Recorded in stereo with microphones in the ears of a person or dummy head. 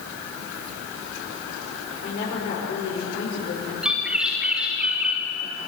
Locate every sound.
2.0 s a woman speaking: 55° left (ahead or behind), 6.5 m
3.8 s a bird: 5° right (ahead or behind), 4.5 m